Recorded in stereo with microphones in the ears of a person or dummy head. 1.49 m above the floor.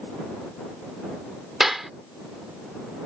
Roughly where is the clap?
Centre.